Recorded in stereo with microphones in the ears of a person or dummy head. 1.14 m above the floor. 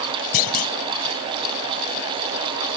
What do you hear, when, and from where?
0.3 s a clunk: 50° left (ahead or behind)